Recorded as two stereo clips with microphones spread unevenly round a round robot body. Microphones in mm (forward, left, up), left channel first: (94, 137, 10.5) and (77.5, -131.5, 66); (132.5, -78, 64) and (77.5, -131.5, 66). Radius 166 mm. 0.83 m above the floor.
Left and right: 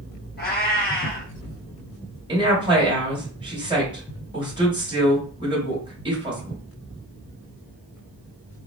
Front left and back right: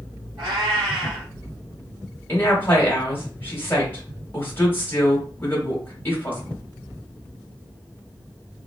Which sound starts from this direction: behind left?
A cat meowing, at 0.4 s.